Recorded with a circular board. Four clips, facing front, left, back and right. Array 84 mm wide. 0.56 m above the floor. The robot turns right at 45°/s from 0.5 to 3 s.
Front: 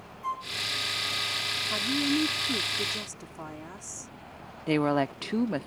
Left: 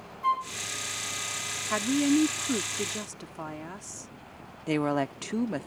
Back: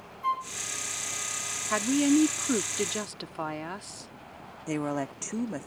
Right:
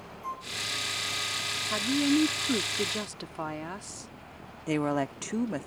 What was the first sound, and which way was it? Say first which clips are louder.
A flute: left 11 dB, back 4 dB; 115° left.